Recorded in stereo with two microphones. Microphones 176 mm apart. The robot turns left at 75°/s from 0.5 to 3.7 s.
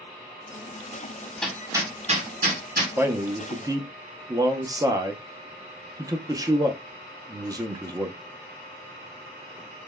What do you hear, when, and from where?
1.4 s hammering: 5° left (ahead or behind), 1.2 m; by 2.9 s 60° right (ahead or behind), 1.2 m
3.0 s a man speaking: 10° right (ahead or behind), 0.5 m; by 8.2 s 20° right (ahead or behind), 0.5 m